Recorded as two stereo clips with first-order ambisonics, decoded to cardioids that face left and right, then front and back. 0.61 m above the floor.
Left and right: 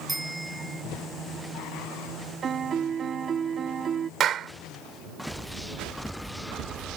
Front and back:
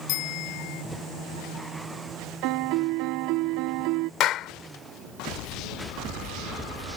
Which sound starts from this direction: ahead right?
A clap, at 4.2 s.